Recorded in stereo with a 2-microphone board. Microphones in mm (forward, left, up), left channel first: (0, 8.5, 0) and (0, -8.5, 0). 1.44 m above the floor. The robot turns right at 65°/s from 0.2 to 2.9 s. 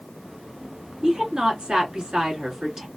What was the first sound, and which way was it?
A woman speaking, 145° right.